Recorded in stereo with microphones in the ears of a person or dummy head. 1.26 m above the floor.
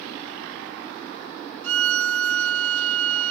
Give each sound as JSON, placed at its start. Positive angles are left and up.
{"t": 1.6, "sound": "a violin", "side_deg": -75}